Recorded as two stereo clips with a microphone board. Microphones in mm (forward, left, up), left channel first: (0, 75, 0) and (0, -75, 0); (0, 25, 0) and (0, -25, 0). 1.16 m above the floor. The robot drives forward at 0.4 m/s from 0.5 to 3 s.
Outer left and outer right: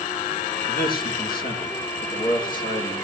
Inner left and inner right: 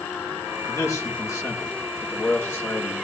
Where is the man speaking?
80° left, 1.7 m; by 2.9 s 60° left (ahead or behind), 1.9 m.